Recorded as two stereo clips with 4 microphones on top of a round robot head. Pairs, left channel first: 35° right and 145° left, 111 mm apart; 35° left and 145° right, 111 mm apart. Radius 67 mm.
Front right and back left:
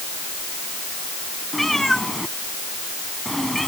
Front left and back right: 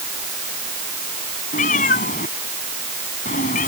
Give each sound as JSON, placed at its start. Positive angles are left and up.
{"t": 1.5, "sound": "a cat meowing", "azimuth_deg": 55}